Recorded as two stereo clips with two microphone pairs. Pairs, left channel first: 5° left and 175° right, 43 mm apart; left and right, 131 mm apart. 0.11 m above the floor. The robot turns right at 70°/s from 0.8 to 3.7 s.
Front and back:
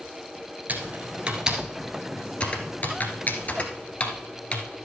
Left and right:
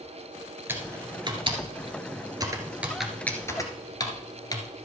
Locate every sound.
0.7 s typing on a keyboard: 155° right, 1.5 m; by 4.7 s 45° left, 1.5 m